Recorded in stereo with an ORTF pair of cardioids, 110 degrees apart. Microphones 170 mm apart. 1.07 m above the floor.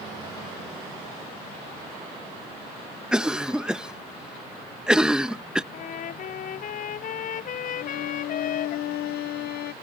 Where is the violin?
70° left.